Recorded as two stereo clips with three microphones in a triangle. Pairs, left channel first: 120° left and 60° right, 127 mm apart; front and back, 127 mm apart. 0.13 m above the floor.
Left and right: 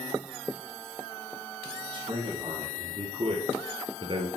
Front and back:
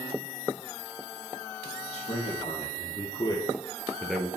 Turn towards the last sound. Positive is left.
turn(degrees=-95)